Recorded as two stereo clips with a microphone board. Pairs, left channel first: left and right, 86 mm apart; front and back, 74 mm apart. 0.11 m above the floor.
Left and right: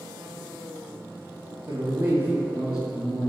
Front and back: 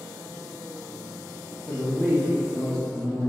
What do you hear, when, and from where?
1.7 s a man speaking: 55° right, 1.4 m; by 3.3 s 100° left, 1.1 m